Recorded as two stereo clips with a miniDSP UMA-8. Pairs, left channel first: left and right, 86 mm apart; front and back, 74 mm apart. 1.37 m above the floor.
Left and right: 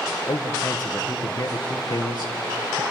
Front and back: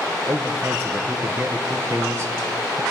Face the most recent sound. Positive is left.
turn(degrees=125)